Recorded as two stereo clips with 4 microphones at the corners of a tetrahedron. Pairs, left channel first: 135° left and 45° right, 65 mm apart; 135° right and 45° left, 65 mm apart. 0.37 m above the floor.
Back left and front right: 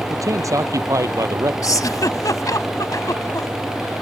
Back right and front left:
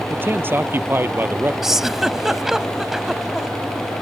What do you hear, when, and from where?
0.1 s a man speaking: 10° right
1.6 s a giggle: 130° left